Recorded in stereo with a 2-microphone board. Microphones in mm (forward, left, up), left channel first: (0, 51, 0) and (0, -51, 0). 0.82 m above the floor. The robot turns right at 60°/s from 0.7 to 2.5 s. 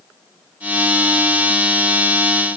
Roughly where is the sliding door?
No sliding door in this recording.